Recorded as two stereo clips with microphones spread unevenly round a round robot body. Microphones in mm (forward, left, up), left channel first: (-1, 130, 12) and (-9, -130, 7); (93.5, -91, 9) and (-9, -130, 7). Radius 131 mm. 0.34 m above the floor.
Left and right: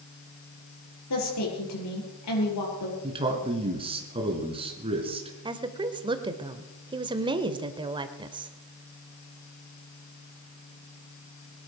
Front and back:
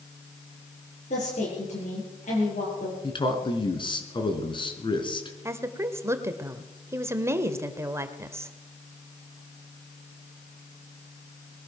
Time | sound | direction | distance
1.1 | a woman speaking | 60° left | 7.5 m
3.0 | a man speaking | 20° right | 3.5 m
5.5 | a woman speaking | 140° right | 1.2 m